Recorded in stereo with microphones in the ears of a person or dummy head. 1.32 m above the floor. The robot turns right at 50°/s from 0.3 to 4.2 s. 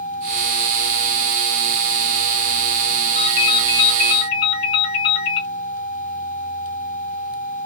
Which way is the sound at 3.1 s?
45° left.